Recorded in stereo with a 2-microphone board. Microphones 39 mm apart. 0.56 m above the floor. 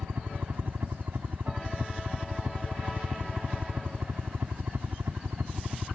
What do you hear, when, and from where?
0.0 s a helicopter: 60° right (ahead or behind); by 6.0 s 65° right (ahead or behind)